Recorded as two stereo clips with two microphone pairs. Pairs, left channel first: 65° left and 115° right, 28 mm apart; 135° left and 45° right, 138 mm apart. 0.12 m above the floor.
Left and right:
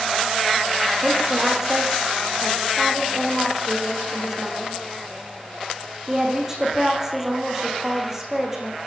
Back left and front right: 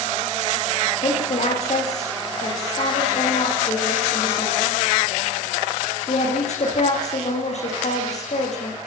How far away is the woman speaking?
About 9.5 m.